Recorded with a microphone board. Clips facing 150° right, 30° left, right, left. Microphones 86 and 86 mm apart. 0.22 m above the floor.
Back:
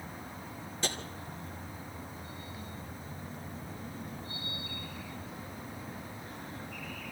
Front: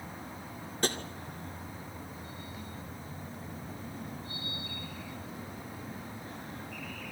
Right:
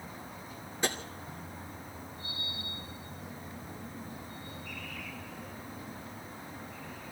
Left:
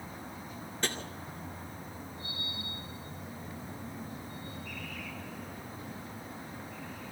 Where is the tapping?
10° right, 2 m.